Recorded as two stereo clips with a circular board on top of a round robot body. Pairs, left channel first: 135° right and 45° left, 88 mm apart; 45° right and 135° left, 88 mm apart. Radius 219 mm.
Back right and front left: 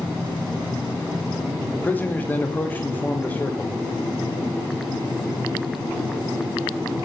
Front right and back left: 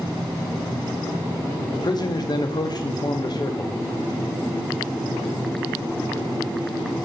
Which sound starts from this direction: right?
A man speaking, at 1.7 s.